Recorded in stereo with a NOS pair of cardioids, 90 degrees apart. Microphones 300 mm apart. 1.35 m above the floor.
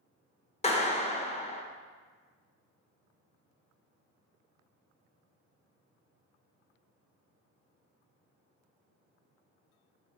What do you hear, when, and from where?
0.6 s a clap: 20° left, 1.0 m